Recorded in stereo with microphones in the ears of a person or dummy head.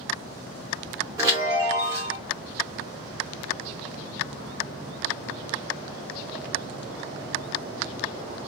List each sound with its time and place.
1.2 s a chime: 20° right (ahead or behind), 1.3 m